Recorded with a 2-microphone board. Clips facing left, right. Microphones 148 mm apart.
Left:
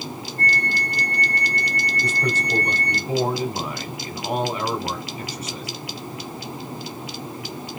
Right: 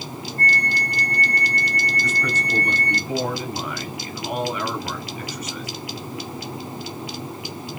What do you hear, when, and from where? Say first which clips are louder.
0.4 s a flute: right 1 dB; 50° right (ahead or behind), 1.9 m
2.0 s a man speaking: left 1 dB; 30° left (ahead or behind), 1.5 m